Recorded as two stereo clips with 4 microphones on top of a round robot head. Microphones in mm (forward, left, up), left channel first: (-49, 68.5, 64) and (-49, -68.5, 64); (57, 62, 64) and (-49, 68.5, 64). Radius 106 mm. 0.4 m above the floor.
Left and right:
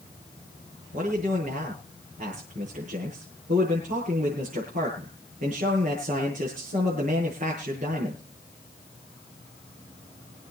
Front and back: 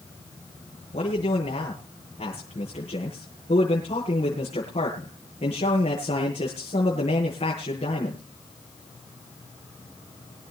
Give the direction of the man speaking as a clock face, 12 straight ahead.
2 o'clock.